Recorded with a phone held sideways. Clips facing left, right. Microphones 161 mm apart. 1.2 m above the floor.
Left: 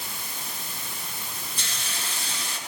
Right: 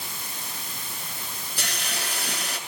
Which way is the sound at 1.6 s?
70° right (ahead or behind).